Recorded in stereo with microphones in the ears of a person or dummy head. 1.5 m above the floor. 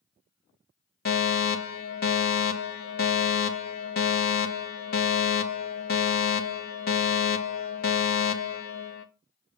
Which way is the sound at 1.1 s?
50° left (ahead or behind).